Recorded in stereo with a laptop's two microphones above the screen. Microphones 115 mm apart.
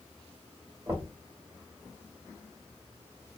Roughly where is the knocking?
Right.